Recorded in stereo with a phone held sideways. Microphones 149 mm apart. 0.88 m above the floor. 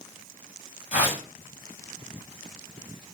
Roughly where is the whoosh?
Left.